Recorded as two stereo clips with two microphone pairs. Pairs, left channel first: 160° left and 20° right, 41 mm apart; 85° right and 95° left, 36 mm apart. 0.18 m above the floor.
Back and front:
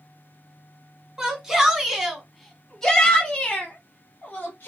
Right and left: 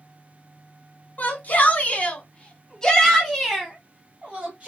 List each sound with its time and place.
1.2 s a shout: 90° right, 1.5 m; by 4.7 s 140° left, 1.3 m